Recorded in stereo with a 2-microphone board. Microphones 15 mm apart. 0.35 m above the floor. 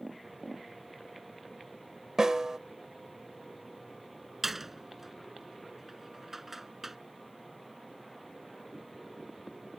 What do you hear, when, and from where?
2.2 s a snare drum: 40° right (ahead or behind)
4.4 s a door slam: 10° right (ahead or behind)